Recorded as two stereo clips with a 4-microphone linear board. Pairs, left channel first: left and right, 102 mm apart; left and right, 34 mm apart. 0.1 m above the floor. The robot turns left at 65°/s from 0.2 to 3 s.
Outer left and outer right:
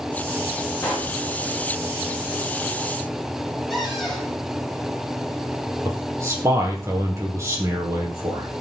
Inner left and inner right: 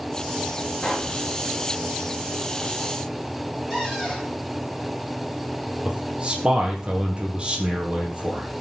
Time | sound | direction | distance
0.8 | a pop | 30° left (ahead or behind) | 7 m
3.7 | a cupboard door | centre (ahead or behind) | 5 m
5.8 | a man speaking | 30° right (ahead or behind) | 4 m